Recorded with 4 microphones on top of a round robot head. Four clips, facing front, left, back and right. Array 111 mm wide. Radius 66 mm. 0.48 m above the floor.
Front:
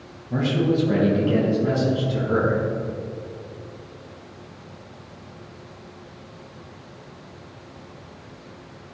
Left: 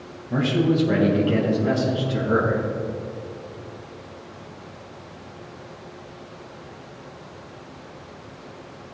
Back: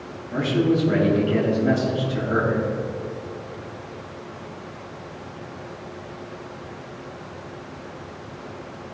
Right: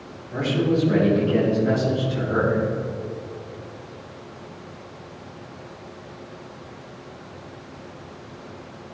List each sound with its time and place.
0.3 s a man speaking: 60° left, 4 m; by 2.6 s 65° left, 5.5 m